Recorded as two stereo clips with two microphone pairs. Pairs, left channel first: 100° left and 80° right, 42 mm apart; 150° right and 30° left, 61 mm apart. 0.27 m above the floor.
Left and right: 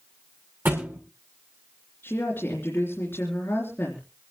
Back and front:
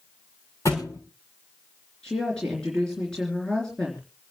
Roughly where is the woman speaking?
Behind left.